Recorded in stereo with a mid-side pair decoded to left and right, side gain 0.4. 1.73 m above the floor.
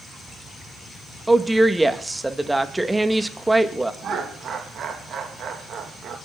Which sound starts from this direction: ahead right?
Laughter, at 4.0 s.